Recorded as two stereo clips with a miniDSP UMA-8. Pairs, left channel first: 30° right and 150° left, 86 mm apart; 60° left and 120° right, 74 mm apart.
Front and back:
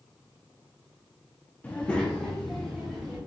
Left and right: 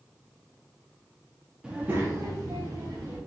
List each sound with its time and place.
1.6 s a child speaking: 65° right, 0.5 m; by 3.2 s 120° right, 1.2 m